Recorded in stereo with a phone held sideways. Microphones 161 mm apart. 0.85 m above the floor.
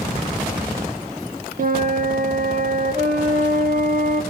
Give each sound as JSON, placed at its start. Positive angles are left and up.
{"t": 1.6, "sound": "a flute", "side_deg": -60, "distance_m": 1.5}